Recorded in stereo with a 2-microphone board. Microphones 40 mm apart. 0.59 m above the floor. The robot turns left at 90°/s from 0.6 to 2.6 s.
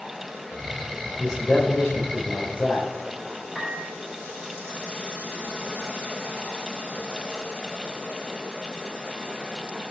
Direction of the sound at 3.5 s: 5° right (ahead or behind).